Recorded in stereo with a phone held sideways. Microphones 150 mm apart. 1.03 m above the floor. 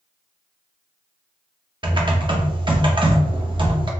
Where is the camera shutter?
No camera shutter in this recording.